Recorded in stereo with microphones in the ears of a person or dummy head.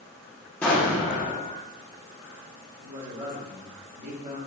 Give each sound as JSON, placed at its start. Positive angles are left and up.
{"t": 0.6, "sound": "an explosion", "side_deg": 10, "distance_m": 0.8}
{"t": 2.8, "sound": "a man speaking", "side_deg": -40, "distance_m": 1.0}